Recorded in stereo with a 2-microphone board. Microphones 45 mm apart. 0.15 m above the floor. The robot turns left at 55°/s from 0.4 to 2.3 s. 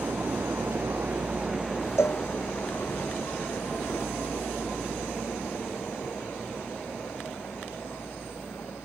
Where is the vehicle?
65° right (ahead or behind); by 8.9 s 90° left.